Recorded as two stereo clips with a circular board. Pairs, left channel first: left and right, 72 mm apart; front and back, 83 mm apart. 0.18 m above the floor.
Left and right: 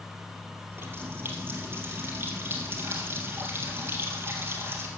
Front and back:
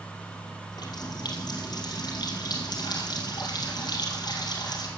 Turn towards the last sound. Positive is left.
turn(degrees=-30)